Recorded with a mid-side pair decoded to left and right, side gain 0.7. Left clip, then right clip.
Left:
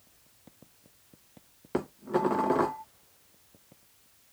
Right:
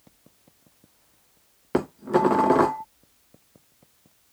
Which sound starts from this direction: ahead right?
Dishes clattering, at 1.7 s.